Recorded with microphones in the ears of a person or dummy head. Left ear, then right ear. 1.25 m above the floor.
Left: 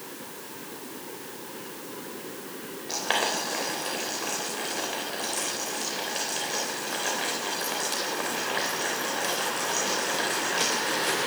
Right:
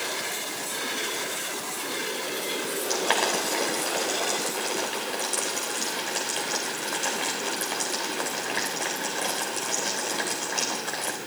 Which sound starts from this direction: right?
Boiling, at 2.9 s.